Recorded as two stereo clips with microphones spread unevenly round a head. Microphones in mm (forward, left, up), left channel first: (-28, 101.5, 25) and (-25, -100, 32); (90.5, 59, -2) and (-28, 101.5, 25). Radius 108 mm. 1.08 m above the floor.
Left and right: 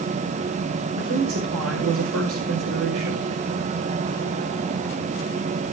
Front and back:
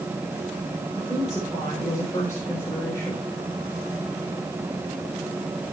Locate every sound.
0.9 s a woman speaking: 95° right, 4 m